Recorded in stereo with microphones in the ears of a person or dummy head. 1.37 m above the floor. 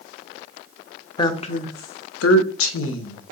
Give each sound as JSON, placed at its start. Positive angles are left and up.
{"t": 1.2, "sound": "a woman speaking", "side_deg": 20, "distance_m": 0.6}